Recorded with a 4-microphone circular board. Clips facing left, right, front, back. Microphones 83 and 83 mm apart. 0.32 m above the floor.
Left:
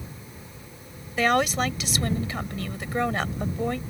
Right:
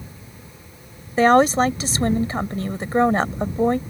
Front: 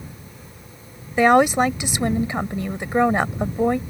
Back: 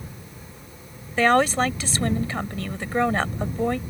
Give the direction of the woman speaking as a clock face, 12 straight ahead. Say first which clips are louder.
Right 8 dB, front 4 dB; 2 o'clock.